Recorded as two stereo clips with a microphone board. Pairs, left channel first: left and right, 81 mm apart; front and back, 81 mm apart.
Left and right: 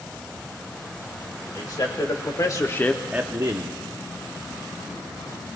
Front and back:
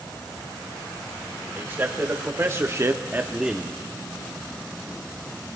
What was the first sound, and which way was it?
A man speaking, 115° left.